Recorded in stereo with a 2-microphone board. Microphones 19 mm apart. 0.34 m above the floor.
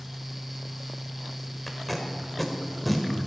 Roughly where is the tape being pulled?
Centre.